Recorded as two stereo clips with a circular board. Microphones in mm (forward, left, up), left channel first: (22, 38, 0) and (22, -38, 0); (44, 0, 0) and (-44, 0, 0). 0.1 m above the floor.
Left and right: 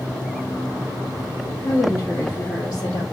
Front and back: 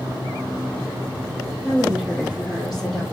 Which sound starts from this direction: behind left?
A woman speaking, at 1.6 s.